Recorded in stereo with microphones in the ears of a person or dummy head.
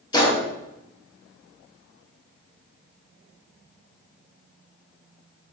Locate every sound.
0.1 s a gunshot: 25° left (ahead or behind), 1.0 m